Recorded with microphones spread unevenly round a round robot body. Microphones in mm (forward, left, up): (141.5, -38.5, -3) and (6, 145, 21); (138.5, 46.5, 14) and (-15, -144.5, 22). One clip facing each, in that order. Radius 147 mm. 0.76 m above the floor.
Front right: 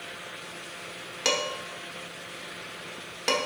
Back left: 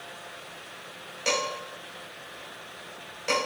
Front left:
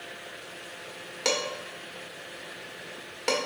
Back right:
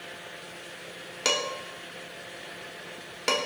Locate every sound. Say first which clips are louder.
1.2 s dishes clattering: even, front left 1 dB; 60° right, 1.2 m